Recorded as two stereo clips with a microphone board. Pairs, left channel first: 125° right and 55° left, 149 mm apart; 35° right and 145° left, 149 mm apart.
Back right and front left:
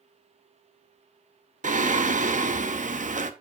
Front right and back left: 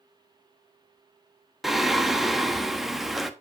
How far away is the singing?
About 0.9 m.